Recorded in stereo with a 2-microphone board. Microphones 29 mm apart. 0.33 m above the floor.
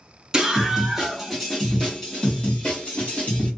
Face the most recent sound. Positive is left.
turn(degrees=60)  # may be behind; listen again after turning